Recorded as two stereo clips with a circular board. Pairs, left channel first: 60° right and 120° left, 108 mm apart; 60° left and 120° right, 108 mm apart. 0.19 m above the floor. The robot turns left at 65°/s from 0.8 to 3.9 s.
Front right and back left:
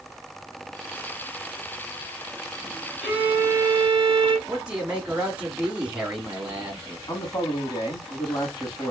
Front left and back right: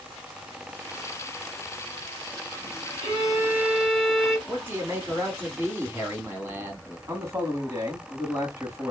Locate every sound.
3.0 s a violin: 155° right, 1.6 m; by 4.4 s 150° left, 1.6 m
4.5 s a man speaking: 170° right, 1.7 m
7.1 s a man speaking: 80° right, 1.4 m